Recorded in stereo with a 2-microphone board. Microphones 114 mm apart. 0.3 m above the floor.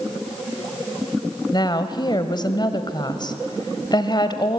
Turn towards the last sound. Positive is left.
turn(degrees=40)  # may be behind; listen again after turning